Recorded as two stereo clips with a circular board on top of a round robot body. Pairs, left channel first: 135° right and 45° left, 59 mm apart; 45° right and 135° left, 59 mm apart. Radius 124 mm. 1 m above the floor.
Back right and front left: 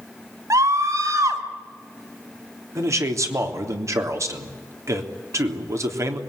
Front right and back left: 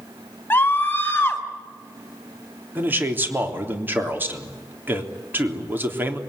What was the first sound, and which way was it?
A scream, 15° left.